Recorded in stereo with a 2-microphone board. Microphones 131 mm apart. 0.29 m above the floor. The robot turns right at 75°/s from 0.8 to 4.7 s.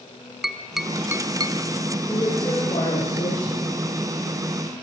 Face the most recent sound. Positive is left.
turn(degrees=-150)